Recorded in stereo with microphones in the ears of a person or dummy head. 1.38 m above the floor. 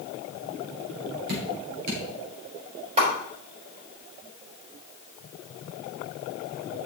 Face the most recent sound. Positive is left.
turn(degrees=-35)  # may be behind; listen again after turning